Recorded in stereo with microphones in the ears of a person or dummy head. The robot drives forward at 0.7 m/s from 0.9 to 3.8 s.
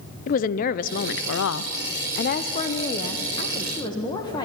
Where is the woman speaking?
45° left (ahead or behind), 0.7 m; by 4.5 s 20° left (ahead or behind), 1.7 m.